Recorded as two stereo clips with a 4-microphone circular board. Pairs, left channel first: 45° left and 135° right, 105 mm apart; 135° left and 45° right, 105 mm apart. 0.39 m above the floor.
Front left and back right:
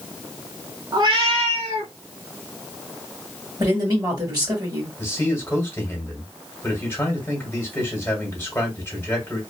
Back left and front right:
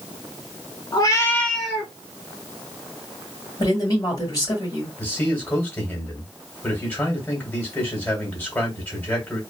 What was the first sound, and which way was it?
A cat meowing, straight behind.